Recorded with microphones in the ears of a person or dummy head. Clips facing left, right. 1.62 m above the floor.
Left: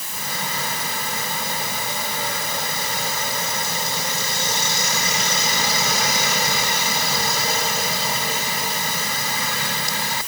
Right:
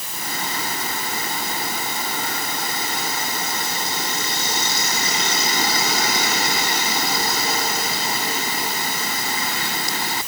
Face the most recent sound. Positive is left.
No sound to turn to.